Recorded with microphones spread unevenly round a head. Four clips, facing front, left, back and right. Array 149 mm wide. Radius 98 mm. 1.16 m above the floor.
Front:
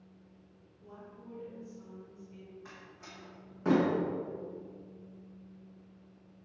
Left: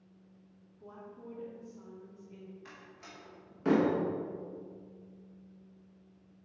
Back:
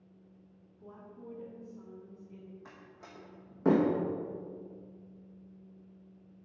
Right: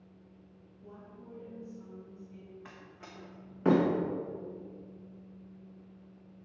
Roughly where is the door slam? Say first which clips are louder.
Right 2 dB, front 1 dB; behind right.